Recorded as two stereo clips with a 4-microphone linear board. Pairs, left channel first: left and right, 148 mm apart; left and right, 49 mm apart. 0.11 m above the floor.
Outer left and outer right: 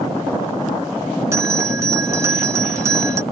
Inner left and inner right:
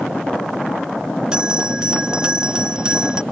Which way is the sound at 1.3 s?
20° right (ahead or behind).